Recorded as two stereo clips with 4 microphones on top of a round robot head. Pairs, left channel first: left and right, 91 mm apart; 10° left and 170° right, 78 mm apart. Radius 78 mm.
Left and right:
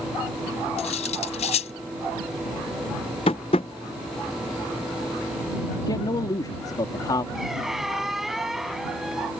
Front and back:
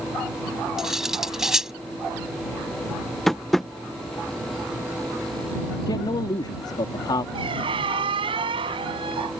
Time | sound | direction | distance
0.8 | cutlery clinking | 100° left | ?
3.3 | tapping | 95° left | ?
5.9 | a man speaking | 40° left | ?
7.3 | a squeak | straight behind | ?